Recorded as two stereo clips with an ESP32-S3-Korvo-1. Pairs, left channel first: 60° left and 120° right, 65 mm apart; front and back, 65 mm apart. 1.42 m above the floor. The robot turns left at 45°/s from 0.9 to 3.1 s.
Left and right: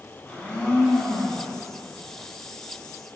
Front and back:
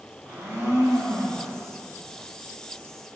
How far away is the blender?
About 1.4 m.